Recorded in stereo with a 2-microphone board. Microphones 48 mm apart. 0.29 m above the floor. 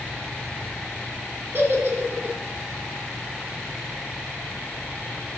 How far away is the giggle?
About 3 m.